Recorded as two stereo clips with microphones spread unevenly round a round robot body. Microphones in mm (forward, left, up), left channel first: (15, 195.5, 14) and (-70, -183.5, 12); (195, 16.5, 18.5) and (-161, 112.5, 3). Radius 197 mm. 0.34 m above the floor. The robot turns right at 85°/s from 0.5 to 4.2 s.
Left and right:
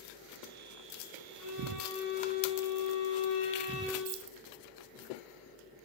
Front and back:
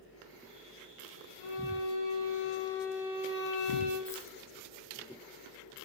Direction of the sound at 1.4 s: 45° right.